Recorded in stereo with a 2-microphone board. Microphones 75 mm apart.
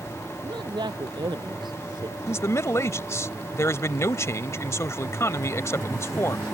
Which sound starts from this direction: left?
A man speaking, at 2.3 s.